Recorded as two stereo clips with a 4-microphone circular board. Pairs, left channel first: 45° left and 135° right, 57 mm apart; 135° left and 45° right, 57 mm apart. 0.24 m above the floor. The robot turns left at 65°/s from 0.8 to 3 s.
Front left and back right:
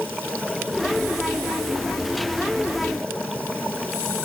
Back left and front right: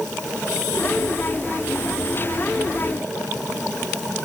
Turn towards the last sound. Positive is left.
No sound to turn to.